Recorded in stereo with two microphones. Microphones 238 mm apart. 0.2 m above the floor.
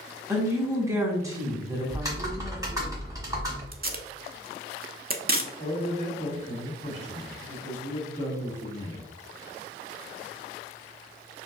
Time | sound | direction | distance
0.3 | a woman speaking | 15° right (ahead or behind) | 1.2 m
1.9 | typing on a keyboard | 15° right (ahead or behind) | 1.1 m
3.7 | tape being pulled | 40° right (ahead or behind) | 0.5 m
5.6 | a man speaking | 30° left (ahead or behind) | 1.7 m